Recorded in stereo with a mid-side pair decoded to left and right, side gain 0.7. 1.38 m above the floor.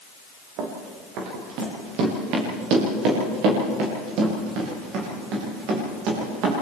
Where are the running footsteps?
60° right, 6 m.